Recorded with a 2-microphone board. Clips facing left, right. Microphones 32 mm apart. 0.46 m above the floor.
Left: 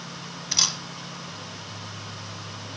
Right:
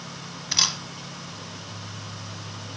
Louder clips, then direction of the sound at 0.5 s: Right 1 dB; 10° right (ahead or behind).